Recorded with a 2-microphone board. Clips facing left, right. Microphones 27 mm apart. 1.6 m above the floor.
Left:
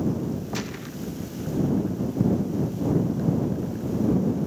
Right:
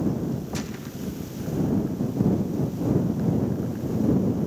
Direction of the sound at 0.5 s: 15° left (ahead or behind).